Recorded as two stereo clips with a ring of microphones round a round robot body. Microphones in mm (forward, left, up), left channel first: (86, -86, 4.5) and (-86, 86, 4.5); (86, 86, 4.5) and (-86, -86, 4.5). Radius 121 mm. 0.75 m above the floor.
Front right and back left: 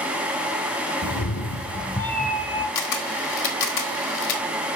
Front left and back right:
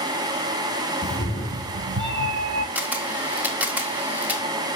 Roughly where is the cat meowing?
Ahead.